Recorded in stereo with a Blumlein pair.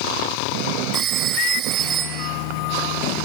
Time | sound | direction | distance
0.9 | a phone ringing | 35° right | 9 m